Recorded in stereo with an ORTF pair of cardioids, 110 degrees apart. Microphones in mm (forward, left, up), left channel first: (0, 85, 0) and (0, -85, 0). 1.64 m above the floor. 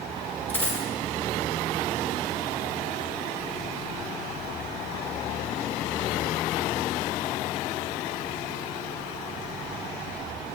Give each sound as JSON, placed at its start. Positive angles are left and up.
{"t": 0.5, "sound": "a dropped coin", "azimuth_deg": 10, "distance_m": 3.0}